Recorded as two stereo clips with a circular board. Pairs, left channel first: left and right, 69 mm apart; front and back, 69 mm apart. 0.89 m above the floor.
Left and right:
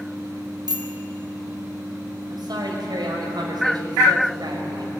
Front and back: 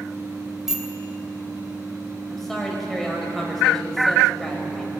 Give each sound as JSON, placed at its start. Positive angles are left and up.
{"t": 0.7, "sound": "a bicycle bell", "azimuth_deg": -95, "distance_m": 3.0}
{"t": 2.3, "sound": "a man speaking", "azimuth_deg": -85, "distance_m": 5.5}